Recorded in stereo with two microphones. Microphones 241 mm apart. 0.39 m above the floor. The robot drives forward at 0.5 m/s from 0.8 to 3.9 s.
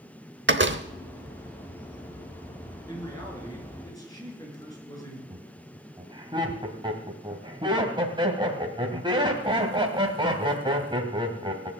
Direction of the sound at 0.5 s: 50° right (ahead or behind).